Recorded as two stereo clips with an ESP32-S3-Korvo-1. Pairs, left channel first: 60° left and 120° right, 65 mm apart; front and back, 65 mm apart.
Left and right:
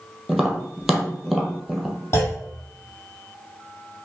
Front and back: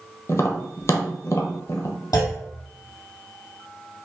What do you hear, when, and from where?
0.3 s tapping: 30° right, 1.0 m
2.1 s a clunk: 15° left, 1.4 m